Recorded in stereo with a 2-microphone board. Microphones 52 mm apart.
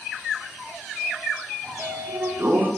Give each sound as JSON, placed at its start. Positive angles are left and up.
{"t": 1.6, "sound": "a sliding door", "side_deg": -60, "distance_m": 3.0}